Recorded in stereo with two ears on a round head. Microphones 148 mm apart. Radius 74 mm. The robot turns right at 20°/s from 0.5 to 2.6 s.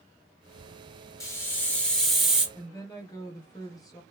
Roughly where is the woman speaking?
Left.